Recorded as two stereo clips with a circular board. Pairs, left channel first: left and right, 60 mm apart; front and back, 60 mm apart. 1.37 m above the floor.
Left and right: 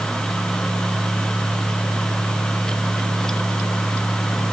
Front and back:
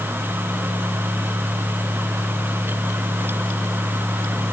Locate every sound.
Only background noise.